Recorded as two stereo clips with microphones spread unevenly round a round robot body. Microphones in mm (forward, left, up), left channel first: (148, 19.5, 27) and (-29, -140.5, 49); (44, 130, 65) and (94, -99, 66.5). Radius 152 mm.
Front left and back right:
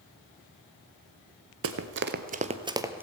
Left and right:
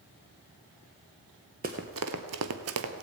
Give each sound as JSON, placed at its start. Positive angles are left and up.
{"t": 1.6, "sound": "running footsteps", "azimuth_deg": -135, "distance_m": 0.9}